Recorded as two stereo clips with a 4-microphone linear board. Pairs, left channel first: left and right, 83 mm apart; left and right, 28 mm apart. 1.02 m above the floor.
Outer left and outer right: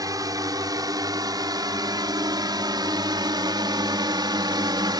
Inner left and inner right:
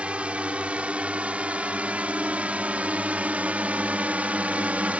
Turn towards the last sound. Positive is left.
turn(degrees=-60)  # may be behind; listen again after turning